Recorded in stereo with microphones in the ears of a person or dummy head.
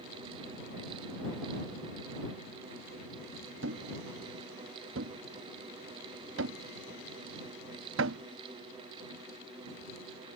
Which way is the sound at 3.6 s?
75° right (ahead or behind).